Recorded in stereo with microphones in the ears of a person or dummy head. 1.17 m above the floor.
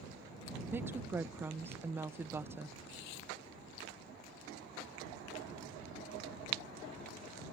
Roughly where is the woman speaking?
Centre.